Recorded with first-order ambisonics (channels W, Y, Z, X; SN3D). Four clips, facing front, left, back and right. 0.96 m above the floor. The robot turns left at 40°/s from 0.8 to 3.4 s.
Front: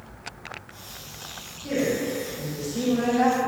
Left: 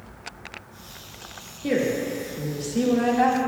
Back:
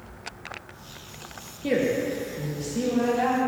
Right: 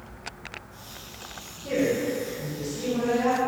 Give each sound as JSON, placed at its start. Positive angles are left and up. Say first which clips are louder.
{"t": 1.6, "sound": "a woman speaking", "louder": "left 1 dB, back 1 dB", "azimuth_deg": 130, "distance_m": 2.5}